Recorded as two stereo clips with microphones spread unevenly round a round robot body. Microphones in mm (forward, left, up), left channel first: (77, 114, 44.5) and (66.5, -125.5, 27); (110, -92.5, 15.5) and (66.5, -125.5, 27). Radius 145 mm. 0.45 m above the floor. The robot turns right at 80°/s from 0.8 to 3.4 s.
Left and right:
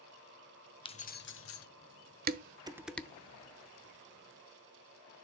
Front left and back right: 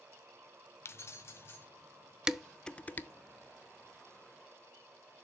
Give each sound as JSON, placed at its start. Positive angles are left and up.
{"t": 0.8, "sound": "keys jangling", "azimuth_deg": 15, "distance_m": 0.8}
{"t": 2.3, "sound": "dishes clattering", "azimuth_deg": -60, "distance_m": 0.7}